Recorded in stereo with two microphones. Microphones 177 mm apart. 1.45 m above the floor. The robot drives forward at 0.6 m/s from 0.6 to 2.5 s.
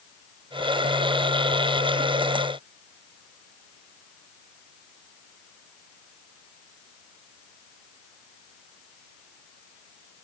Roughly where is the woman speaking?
No woman speaking in this recording.